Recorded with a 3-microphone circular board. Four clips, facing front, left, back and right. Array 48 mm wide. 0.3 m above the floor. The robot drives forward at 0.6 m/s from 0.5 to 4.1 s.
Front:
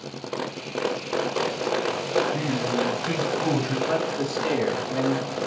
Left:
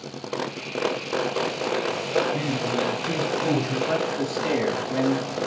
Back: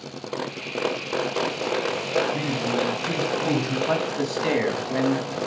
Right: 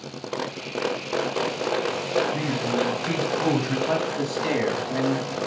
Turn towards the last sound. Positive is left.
turn(degrees=-155)